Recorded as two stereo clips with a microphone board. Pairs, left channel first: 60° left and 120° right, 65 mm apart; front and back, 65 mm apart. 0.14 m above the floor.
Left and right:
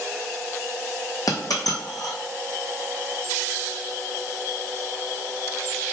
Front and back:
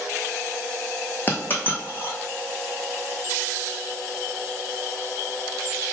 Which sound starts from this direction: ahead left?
A dropped coin, at 1.3 s.